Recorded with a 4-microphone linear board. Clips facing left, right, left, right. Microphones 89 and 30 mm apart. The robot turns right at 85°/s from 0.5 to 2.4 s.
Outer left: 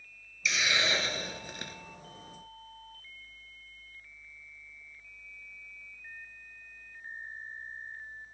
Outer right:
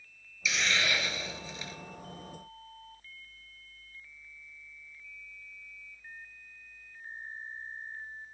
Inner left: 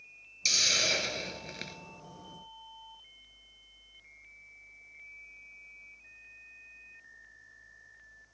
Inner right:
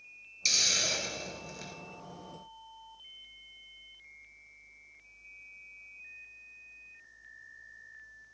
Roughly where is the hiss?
Ahead.